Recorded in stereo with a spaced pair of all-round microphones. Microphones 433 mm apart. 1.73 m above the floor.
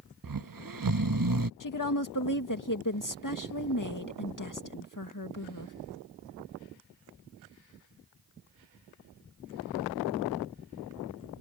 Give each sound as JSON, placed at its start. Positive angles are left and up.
{"t": 0.2, "sound": "snoring", "side_deg": -45}
{"t": 1.6, "sound": "a woman speaking", "side_deg": 45}